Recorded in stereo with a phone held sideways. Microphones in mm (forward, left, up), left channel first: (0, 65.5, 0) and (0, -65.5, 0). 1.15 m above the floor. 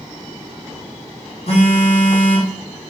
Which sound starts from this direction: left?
A phone buzzing, at 1.5 s.